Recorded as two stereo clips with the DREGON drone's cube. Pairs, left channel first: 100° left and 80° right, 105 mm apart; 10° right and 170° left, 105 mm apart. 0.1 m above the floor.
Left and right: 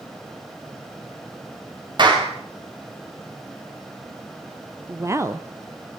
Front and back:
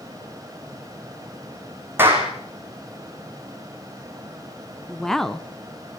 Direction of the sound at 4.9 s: 90° right.